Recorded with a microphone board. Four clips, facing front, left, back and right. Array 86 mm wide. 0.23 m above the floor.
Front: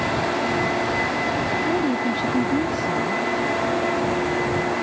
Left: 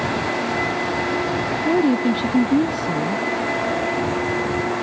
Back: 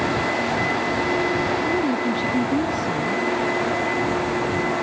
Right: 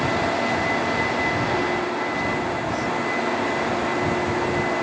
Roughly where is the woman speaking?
Left.